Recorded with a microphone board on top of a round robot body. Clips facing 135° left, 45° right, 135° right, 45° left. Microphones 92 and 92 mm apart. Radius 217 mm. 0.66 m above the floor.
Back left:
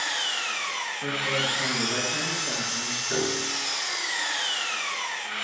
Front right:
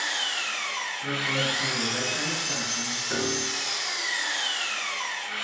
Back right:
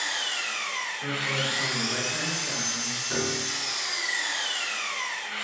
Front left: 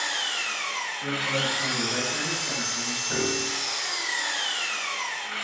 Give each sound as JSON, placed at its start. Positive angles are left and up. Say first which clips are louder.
{"t": 0.0, "sound": "an engine running", "louder": "back left 1 dB, front left 1 dB", "azimuth_deg": 85, "distance_m": 0.7}
{"t": 1.0, "sound": "a man speaking", "louder": "even, front left 3 dB", "azimuth_deg": 140, "distance_m": 0.9}
{"t": 3.1, "sound": "a piano", "louder": "back left 1 dB, front left 2 dB", "azimuth_deg": 40, "distance_m": 0.6}